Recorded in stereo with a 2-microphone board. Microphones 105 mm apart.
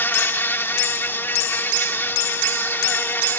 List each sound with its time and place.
0.0 s an insect: 20° left (ahead or behind)